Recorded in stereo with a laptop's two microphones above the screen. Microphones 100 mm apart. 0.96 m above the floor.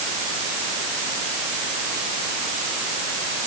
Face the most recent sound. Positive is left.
No sound to turn to.